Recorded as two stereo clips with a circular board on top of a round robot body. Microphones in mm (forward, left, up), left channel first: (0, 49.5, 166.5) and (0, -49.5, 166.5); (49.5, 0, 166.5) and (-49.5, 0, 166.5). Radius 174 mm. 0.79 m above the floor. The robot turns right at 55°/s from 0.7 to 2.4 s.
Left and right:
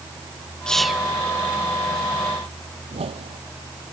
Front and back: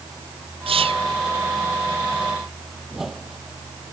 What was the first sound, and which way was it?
Whispering, 170° left.